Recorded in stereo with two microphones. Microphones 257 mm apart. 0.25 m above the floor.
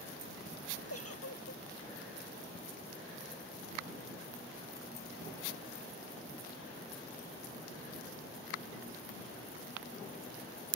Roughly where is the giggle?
Left.